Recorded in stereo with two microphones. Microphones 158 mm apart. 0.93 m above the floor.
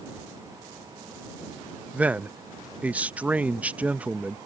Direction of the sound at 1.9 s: 10° right (ahead or behind).